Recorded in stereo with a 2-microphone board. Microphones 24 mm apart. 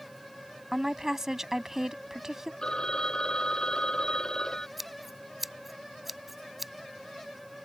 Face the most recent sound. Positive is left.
turn(degrees=-10)  # may be behind; listen again after turning